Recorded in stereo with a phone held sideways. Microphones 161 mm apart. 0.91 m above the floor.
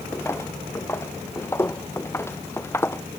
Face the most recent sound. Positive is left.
turn(degrees=15)  # may be behind; listen again after turning